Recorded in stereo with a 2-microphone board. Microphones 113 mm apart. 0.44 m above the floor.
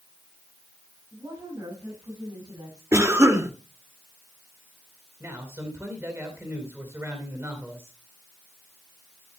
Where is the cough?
25° right (ahead or behind), 1.5 m.